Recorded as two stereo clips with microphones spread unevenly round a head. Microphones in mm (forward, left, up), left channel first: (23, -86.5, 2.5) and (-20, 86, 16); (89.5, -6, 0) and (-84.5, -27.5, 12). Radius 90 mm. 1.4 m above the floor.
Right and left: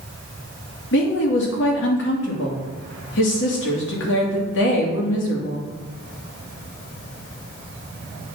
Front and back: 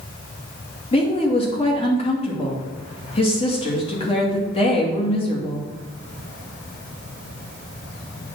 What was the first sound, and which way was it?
A woman speaking, 50° right.